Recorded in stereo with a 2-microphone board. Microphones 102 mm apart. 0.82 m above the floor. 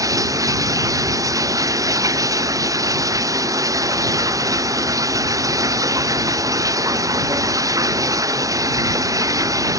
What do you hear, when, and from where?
0.0 s running water: 35° right (ahead or behind)